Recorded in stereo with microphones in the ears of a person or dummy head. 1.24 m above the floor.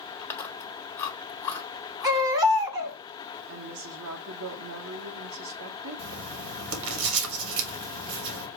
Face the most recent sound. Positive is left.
turn(degrees=-65)  # may be behind; listen again after turning